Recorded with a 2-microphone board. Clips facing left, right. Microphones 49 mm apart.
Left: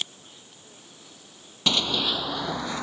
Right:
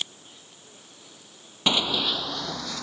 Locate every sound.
1.7 s running footsteps: 20° right (ahead or behind); by 2.8 s 25° left (ahead or behind)